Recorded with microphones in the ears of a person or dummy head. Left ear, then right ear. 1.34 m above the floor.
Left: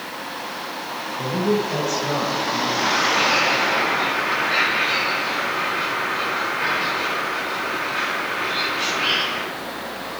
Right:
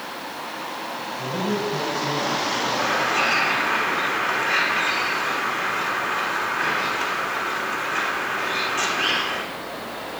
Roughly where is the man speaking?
Left.